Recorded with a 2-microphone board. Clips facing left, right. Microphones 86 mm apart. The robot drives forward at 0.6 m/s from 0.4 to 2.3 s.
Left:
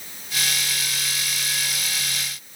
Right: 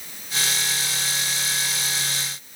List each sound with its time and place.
Only background noise.